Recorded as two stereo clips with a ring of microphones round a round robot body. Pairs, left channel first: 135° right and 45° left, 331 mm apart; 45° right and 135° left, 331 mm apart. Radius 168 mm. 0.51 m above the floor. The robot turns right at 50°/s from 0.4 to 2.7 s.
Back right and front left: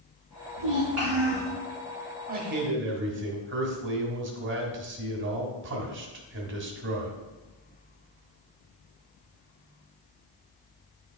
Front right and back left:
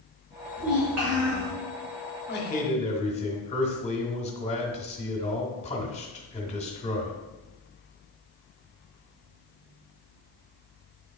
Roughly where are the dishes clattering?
I don't hear dishes clattering.